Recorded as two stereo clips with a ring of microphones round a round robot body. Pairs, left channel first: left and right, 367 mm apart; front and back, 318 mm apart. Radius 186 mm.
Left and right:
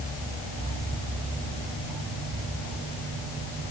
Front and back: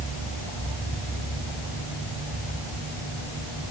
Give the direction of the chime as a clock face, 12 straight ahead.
No chime in this recording.